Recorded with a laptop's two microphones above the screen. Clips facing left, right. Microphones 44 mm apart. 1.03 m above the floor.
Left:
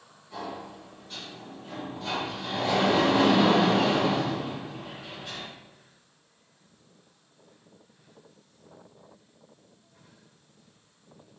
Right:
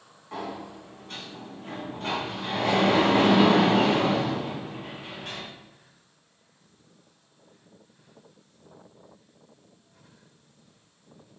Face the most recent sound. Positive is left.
turn(degrees=-65)  # may be behind; listen again after turning